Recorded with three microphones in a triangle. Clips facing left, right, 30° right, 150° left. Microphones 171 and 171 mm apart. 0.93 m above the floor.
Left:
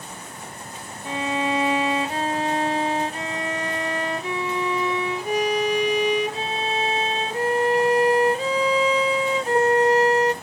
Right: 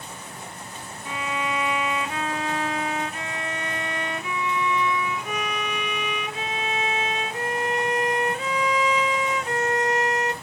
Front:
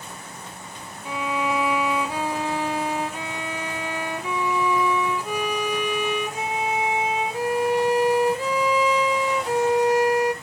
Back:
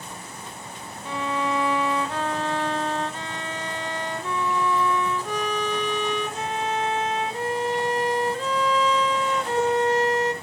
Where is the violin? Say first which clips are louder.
Left 5 dB, front 1 dB; 45° left, 0.8 m.